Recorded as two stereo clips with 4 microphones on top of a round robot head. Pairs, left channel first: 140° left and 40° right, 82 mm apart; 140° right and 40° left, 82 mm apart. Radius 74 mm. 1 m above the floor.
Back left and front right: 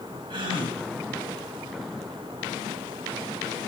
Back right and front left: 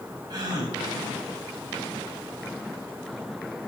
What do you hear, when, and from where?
0.3 s a gasp: 5° right, 3.5 m